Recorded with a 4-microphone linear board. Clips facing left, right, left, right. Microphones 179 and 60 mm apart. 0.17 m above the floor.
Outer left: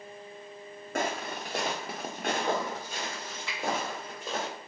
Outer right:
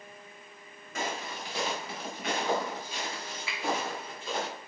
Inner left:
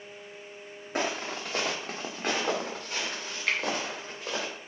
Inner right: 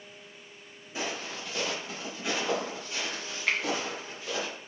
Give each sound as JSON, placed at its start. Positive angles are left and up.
{"t": 0.9, "sound": "footsteps", "side_deg": 55, "distance_m": 0.6}
{"t": 3.5, "sound": "a finger snap", "side_deg": -5, "distance_m": 1.2}